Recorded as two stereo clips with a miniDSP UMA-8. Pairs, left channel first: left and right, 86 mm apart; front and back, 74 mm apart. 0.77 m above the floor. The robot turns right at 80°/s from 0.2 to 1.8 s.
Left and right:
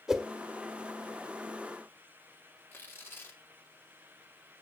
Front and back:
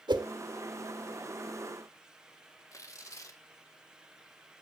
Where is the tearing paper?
30° left, 1.6 m.